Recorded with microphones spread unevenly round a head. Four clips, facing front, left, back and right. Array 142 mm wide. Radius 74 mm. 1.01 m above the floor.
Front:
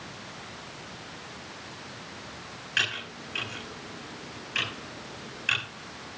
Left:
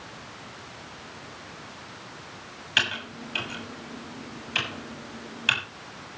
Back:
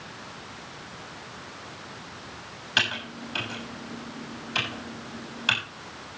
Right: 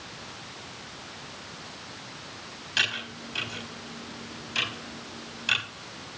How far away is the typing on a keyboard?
About 6.5 m.